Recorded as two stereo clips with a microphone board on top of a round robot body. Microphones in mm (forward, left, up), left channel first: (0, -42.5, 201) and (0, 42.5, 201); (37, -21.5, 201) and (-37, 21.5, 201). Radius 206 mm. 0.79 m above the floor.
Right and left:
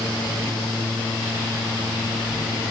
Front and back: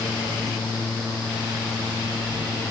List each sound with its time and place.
Only background noise.